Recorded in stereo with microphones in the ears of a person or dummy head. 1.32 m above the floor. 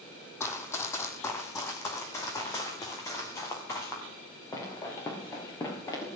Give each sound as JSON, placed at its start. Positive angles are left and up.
{"t": 0.4, "sound": "running footsteps", "side_deg": 15, "distance_m": 2.5}